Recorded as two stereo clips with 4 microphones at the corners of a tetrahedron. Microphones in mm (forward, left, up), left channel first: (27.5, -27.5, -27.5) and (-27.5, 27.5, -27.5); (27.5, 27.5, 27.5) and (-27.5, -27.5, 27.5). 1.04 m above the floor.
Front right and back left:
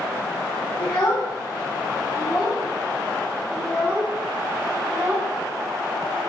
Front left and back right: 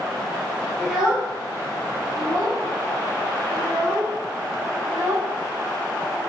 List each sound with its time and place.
0.8 s a child speaking: 45° right, 1.2 m; by 6.2 s straight behind, 2.5 m